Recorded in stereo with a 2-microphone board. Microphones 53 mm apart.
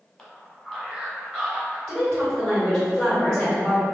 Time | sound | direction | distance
0.2 | a man speaking | 5° left (ahead or behind) | 1.2 m
1.9 | a woman speaking | 5° left (ahead or behind) | 1.9 m